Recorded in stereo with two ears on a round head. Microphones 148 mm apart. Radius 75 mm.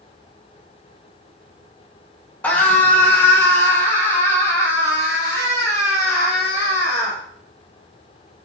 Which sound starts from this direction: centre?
A scream, at 2.4 s.